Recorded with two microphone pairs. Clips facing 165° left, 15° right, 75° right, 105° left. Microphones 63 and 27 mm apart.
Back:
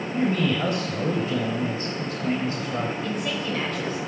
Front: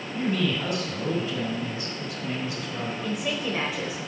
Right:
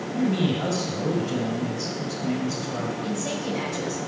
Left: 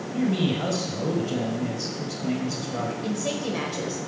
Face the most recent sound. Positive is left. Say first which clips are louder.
# back 1 dB, even
turn(degrees=60)